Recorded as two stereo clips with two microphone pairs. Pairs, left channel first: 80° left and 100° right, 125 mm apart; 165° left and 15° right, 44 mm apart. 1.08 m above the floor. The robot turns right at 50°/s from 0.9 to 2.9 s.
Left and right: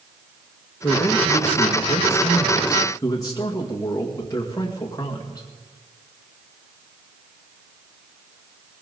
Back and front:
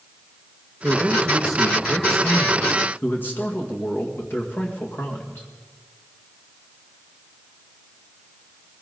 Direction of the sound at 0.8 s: 35° left.